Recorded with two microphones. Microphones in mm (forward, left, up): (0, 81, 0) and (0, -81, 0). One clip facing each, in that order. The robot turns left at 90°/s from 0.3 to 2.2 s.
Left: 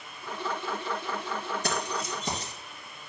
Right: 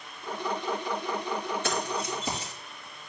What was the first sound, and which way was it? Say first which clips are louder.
Keys jangling: right 1 dB; 40° left (ahead or behind).